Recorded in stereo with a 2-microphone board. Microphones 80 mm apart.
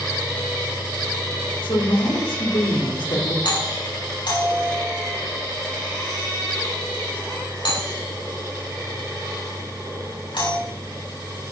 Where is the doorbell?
80° left, 7.5 m.